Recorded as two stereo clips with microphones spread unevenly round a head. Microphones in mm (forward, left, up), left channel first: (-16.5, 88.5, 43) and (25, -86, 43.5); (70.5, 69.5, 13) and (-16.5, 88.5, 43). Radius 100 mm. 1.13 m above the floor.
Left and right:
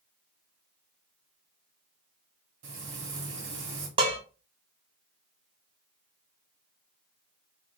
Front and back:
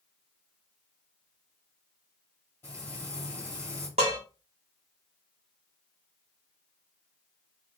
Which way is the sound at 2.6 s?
100° right.